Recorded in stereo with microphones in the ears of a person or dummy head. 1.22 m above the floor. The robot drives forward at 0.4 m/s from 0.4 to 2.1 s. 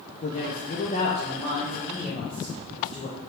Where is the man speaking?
35° left (ahead or behind), 0.8 m; by 3.2 s 20° left (ahead or behind), 1.3 m.